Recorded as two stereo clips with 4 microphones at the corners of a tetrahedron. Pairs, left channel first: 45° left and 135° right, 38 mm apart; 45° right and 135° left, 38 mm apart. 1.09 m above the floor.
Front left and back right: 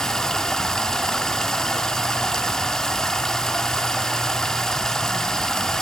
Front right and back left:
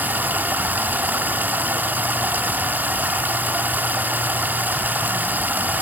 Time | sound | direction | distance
0.0 | running water | 120° left | 0.9 m